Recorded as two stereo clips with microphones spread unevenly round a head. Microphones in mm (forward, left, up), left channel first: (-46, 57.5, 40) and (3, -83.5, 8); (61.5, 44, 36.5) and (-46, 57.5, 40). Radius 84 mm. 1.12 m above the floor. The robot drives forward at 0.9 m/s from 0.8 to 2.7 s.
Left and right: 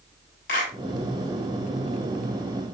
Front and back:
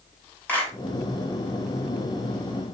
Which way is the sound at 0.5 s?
65° left.